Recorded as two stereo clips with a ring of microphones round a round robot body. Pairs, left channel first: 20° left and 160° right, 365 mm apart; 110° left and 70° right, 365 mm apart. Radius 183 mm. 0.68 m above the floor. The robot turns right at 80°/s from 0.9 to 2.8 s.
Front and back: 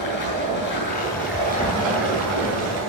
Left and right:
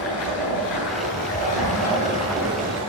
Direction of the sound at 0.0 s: 85° left.